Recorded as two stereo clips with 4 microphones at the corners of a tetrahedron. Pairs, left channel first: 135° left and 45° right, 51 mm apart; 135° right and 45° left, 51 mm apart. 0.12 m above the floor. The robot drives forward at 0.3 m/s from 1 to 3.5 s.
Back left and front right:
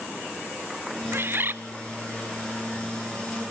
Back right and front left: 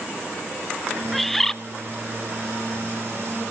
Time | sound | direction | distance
1.1 | a bird | 50° right | 0.9 m